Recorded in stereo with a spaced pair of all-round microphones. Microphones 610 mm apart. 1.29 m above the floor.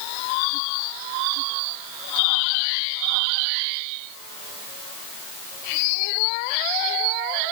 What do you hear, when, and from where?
Only background noise.